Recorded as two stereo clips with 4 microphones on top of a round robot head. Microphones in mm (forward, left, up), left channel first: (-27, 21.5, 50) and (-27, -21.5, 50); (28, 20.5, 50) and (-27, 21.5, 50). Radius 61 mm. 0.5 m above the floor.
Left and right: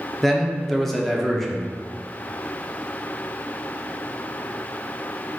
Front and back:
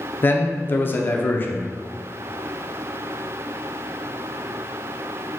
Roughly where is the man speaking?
Ahead.